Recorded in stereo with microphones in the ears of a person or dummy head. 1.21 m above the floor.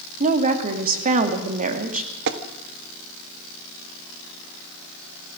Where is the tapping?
65° right (ahead or behind), 1.4 m.